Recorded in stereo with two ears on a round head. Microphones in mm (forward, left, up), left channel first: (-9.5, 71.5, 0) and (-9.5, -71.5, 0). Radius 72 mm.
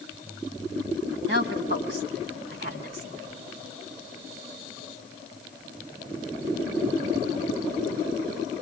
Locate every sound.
1.3 s a woman speaking: 75° right (ahead or behind), 5 m; by 3.3 s 65° right (ahead or behind), 5 m